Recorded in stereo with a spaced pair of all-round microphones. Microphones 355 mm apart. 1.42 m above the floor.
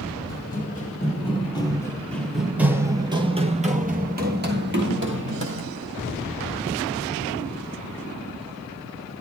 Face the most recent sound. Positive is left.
turn(degrees=-35)  # may be behind; listen again after turning